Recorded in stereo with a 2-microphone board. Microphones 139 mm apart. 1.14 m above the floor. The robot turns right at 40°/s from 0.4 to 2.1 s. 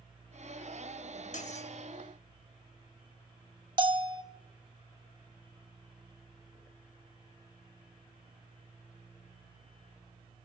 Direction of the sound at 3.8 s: 35° right (ahead or behind).